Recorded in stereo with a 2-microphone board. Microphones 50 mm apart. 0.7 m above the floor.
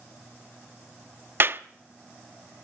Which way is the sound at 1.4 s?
45° right (ahead or behind).